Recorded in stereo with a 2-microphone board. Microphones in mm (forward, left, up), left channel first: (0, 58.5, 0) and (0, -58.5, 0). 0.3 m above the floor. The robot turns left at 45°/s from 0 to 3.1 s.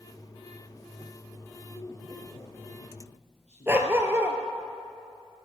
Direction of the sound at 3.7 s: 20° right (ahead or behind).